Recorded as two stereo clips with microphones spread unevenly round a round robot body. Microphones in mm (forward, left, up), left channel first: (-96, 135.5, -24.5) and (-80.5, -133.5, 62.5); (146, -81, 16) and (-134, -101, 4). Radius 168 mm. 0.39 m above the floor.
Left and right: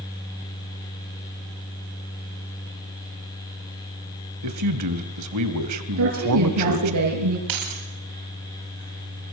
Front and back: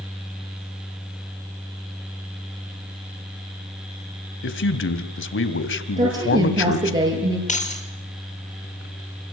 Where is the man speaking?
40° right, 2.5 m.